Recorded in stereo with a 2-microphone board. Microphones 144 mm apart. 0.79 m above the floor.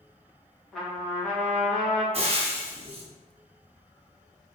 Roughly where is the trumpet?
Centre.